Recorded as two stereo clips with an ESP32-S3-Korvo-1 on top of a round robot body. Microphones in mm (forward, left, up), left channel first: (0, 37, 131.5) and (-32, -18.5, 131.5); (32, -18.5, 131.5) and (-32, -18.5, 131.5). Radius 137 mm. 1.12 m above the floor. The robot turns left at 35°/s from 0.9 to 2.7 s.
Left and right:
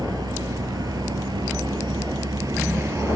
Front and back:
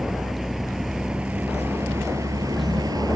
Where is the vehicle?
95° right; by 3.2 s 160° right.